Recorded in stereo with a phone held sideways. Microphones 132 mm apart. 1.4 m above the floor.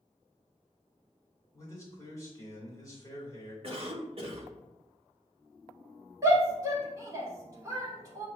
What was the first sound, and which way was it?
A man speaking, 25° left (ahead or behind).